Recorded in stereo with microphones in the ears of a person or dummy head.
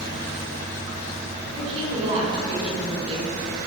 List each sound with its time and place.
1.5 s a woman speaking: 30° right (ahead or behind), 5.5 m